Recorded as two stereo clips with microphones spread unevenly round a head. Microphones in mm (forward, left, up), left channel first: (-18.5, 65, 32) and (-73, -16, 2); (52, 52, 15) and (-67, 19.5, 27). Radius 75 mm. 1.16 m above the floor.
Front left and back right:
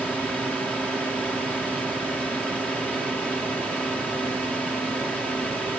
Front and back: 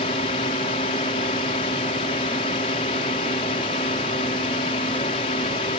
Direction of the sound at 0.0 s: 30° right.